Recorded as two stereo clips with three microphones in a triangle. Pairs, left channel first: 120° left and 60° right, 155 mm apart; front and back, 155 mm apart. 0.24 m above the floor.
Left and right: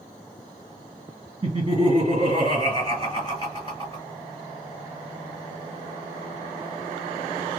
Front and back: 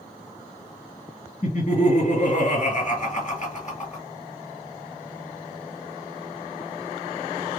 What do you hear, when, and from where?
1.4 s laughter: 15° right, 2.5 m